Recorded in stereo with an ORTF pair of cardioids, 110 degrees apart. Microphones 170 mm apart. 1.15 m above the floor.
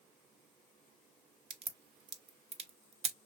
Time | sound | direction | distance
1.5 | a crack | 40° right | 0.7 m